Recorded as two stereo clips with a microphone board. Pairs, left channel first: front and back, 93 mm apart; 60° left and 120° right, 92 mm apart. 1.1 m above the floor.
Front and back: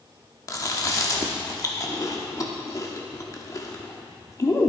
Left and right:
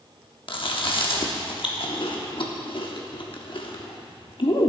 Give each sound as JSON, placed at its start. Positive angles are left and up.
{"t": 0.5, "sound": "chewing", "azimuth_deg": 50, "distance_m": 1.0}